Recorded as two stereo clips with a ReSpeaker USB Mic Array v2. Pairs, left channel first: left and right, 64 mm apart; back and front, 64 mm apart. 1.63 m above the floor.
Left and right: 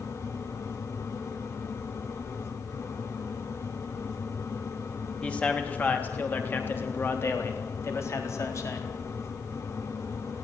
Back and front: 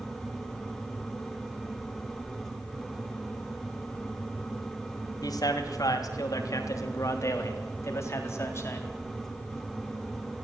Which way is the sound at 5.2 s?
165° left.